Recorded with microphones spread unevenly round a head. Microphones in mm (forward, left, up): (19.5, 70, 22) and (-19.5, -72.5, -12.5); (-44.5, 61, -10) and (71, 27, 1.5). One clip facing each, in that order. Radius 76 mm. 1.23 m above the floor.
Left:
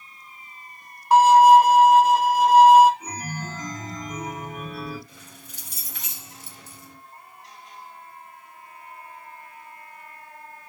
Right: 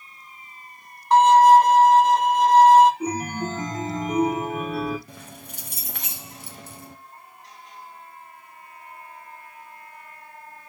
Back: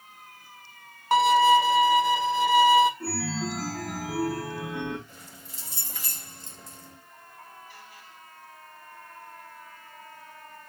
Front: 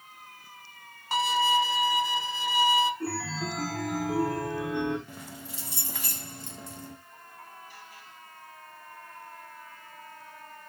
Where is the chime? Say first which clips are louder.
Right 8 dB, back 2 dB; 110° right, 1.1 m.